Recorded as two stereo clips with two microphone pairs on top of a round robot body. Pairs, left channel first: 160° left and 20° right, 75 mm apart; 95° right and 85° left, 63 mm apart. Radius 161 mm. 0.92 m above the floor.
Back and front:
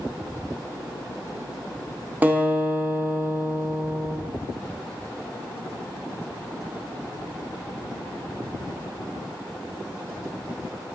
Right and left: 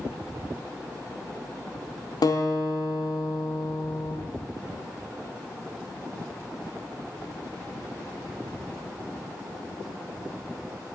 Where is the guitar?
90° right, 0.5 m.